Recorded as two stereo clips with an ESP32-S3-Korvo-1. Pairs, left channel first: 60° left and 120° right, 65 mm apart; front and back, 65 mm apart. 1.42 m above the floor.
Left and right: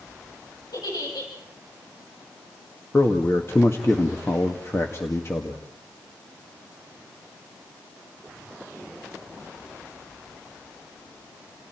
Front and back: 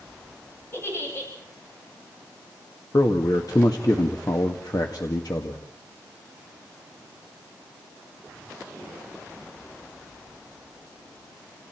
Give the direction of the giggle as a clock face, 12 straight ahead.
10 o'clock.